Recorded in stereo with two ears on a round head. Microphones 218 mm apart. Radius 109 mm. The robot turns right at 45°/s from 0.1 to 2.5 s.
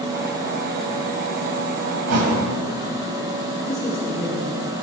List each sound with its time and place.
2.1 s a thud: 70° right (ahead or behind), 1.5 m
3.6 s a man speaking: 10° left (ahead or behind), 3 m